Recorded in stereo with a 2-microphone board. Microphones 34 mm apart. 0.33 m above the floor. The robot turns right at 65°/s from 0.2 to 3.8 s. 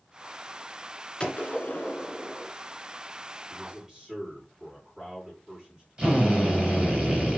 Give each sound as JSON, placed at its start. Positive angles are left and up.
{"t": 1.2, "sound": "a gunshot", "azimuth_deg": 25, "distance_m": 1.9}
{"t": 3.5, "sound": "a man speaking", "side_deg": 0, "distance_m": 4.0}
{"t": 6.0, "sound": "a drill", "side_deg": -20, "distance_m": 4.5}